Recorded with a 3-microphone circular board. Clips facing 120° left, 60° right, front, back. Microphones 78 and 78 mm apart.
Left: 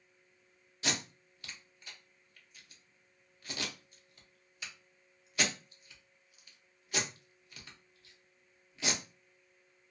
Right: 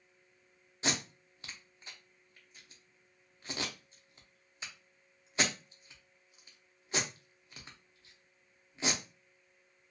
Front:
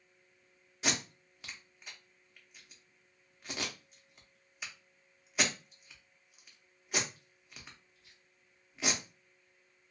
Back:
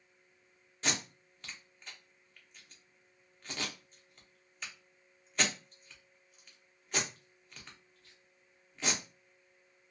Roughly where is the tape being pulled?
Right.